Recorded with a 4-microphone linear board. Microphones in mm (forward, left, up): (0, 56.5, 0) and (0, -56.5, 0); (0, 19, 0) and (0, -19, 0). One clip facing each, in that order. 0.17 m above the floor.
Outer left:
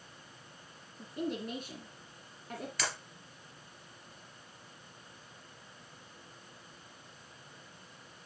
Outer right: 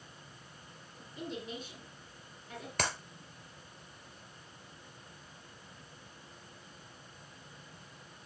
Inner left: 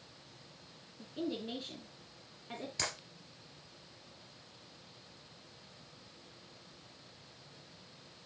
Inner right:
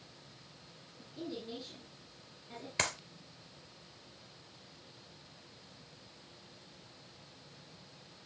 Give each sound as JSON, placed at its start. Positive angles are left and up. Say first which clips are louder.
{"t": 1.0, "sound": "a woman speaking", "louder": "outer left 6 dB, inner left 4 dB", "side_deg": 50, "distance_m": 2.5}
{"t": 2.8, "sound": "a clap", "louder": "outer right 4 dB, inner right 6 dB", "side_deg": -50, "distance_m": 2.5}